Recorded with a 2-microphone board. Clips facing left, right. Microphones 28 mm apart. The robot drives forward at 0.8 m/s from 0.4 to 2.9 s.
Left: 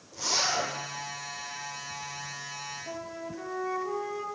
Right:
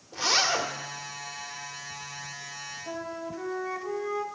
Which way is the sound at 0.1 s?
45° right (ahead or behind).